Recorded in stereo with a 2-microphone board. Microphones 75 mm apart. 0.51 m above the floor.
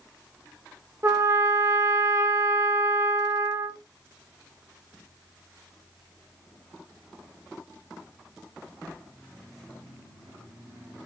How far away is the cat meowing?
I don't hear a cat meowing.